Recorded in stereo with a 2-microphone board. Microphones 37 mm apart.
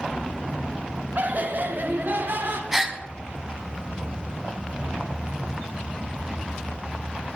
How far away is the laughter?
About 1.0 m.